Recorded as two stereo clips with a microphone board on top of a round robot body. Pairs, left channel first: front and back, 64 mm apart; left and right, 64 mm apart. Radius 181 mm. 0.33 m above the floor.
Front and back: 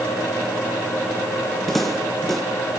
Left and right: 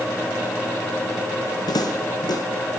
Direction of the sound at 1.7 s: 85° left.